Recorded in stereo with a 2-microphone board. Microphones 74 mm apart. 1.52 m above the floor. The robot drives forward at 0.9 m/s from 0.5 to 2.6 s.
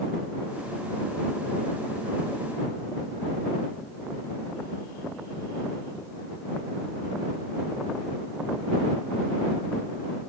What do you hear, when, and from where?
Only background noise.